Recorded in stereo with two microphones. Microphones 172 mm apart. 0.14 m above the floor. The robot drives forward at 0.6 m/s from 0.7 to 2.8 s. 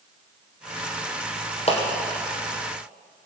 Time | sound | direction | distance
1.7 | a clap | 40° left (ahead or behind) | 3 m